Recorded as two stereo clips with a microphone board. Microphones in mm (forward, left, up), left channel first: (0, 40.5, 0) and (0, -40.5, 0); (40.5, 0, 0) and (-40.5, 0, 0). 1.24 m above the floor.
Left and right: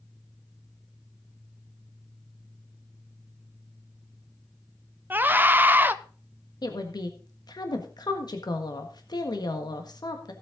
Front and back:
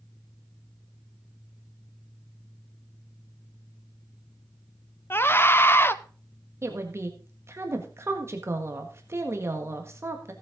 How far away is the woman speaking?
About 1.5 m.